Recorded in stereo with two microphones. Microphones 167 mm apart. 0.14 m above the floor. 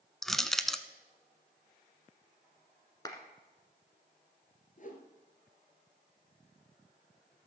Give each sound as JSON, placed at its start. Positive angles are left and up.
{"t": 0.2, "sound": "crushing", "side_deg": 0, "distance_m": 0.6}
{"t": 3.0, "sound": "a clap", "side_deg": 25, "distance_m": 1.4}
{"t": 4.8, "sound": "a whoosh", "side_deg": 55, "distance_m": 1.8}